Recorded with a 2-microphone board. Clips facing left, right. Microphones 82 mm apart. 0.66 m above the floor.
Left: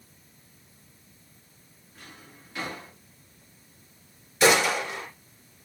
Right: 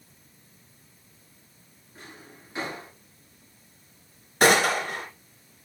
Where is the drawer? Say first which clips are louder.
Right 3 dB; 25° right (ahead or behind), 5.5 m.